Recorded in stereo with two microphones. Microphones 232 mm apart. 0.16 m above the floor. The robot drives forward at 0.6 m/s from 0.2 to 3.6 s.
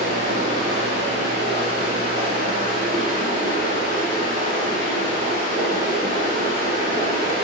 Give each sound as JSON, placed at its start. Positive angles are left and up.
{"t": 0.0, "sound": "running water", "side_deg": -60, "distance_m": 2.5}